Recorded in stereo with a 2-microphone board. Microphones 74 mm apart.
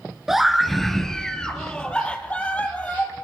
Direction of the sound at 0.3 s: 5° right (ahead or behind).